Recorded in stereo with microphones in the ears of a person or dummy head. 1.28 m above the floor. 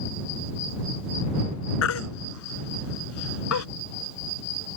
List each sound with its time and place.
1.8 s a baby crying: 75° left (ahead or behind)